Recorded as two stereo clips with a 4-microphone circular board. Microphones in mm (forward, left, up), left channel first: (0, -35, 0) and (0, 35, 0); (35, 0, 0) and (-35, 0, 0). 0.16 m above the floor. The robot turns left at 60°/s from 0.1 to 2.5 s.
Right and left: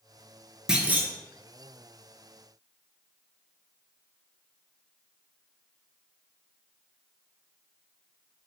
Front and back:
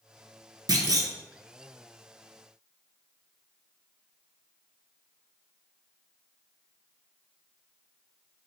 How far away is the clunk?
About 0.5 m.